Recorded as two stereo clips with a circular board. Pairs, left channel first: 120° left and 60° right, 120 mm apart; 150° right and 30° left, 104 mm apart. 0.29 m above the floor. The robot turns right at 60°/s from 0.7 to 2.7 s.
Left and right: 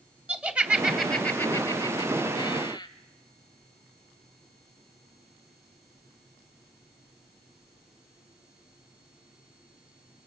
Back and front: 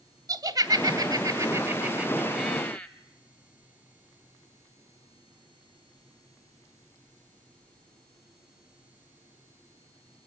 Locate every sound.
0.3 s laughter: 15° left, 1.6 m; by 2.9 s 135° left, 1.6 m